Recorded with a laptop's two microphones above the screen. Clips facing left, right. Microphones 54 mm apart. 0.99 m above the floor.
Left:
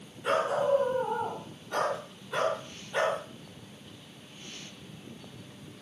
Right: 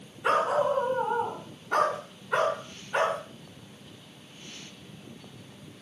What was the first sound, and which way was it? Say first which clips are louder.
A dog barking: right 2 dB; 85° right.